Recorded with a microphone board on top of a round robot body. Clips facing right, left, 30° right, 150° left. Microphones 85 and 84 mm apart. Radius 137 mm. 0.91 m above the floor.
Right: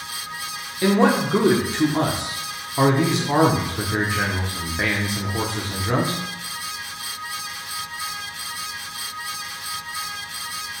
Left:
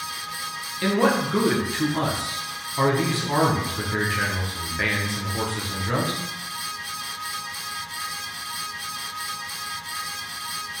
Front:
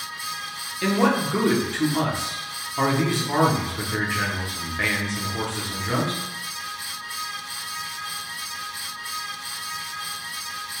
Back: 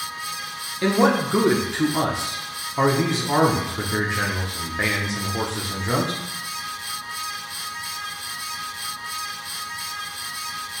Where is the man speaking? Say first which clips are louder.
Right 3 dB, back 2 dB; 150° right, 0.9 m.